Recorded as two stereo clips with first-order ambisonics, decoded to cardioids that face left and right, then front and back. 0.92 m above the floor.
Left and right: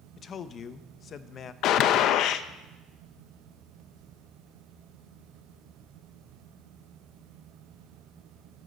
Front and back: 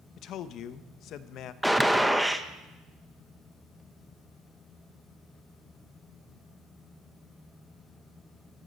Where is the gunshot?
90° left, 0.7 m.